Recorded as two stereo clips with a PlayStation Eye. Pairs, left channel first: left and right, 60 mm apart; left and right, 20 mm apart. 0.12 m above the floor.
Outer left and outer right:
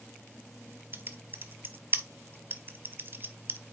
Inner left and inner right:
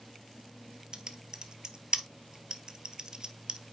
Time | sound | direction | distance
0.9 | typing on a keyboard | 40° right (ahead or behind) | 0.6 m